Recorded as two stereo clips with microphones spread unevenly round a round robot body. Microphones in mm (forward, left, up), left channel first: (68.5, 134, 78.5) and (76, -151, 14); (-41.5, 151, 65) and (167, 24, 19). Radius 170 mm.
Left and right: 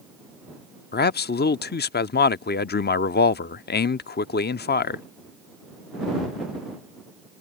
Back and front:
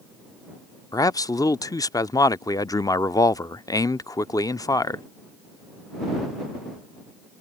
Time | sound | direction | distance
0.9 | a man speaking | 65° left | ?